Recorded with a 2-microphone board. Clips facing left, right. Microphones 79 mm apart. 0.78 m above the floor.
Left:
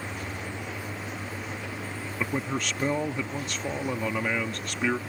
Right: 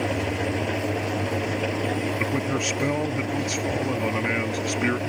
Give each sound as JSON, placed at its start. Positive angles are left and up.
{"t": 0.0, "sound": "an engine running", "side_deg": -85}
{"t": 2.2, "sound": "a man speaking", "side_deg": -5}